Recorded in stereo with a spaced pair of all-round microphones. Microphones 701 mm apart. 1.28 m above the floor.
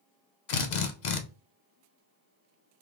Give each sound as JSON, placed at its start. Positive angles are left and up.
{"t": 0.5, "sound": "a drill", "side_deg": 80, "distance_m": 0.8}